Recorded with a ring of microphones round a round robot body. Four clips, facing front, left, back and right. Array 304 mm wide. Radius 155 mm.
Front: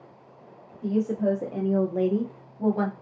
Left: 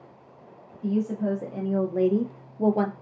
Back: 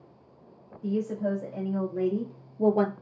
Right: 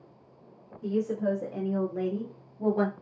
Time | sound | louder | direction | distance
0.8 | a woman speaking | left 2 dB, front 4 dB | 5° right | 1.5 m